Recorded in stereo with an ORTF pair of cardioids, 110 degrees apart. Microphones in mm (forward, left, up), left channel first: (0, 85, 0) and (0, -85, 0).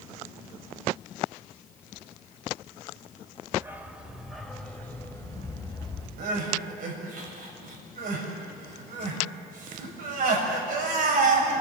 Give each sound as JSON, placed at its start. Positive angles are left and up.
{"t": 3.5, "sound": "a dog barking", "azimuth_deg": -15, "distance_m": 3.0}
{"t": 6.2, "sound": "crying", "azimuth_deg": -65, "distance_m": 7.0}